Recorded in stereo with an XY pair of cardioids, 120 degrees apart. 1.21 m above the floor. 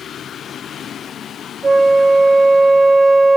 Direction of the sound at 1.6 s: 25° right.